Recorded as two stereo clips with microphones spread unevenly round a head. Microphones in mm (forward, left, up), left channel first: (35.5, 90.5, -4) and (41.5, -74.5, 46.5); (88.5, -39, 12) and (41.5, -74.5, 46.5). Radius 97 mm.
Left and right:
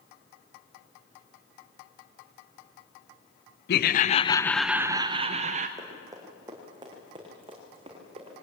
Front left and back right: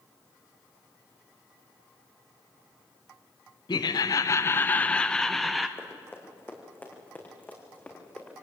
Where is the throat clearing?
I don't hear throat clearing.